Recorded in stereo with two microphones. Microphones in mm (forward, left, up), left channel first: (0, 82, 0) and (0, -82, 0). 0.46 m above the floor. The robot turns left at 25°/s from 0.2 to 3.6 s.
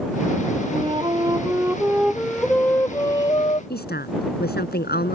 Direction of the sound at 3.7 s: 80° left.